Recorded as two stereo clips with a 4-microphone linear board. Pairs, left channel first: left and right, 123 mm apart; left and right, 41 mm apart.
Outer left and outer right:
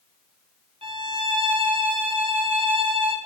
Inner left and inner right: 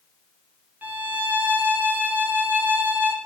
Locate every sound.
0.8 s a violin: 45° right (ahead or behind), 2 m